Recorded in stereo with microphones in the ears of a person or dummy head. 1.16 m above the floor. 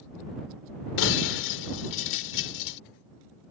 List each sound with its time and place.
1.0 s breaking glass: 65° left (ahead or behind)